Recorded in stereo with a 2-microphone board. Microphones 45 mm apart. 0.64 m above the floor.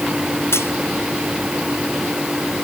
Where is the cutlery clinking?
75° left (ahead or behind).